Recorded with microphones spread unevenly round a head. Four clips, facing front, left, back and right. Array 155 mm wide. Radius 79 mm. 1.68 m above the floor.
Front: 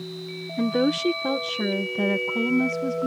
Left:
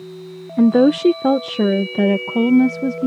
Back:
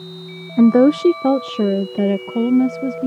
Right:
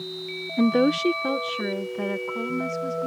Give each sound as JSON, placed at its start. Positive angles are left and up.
{"t": 0.6, "sound": "a woman speaking", "azimuth_deg": 165}